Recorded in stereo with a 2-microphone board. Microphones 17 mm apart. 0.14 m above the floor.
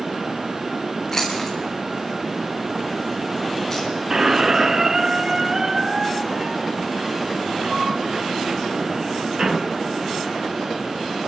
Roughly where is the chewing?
Left.